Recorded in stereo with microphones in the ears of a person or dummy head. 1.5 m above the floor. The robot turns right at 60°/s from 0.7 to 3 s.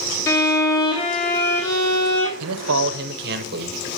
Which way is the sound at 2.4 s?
90° right.